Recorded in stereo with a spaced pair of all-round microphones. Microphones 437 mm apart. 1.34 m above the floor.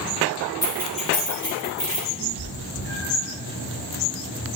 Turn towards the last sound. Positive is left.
turn(degrees=-80)